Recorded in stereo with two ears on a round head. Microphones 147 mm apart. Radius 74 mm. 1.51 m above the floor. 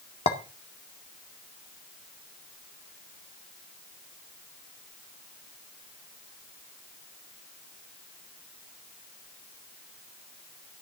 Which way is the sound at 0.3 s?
35° left (ahead or behind).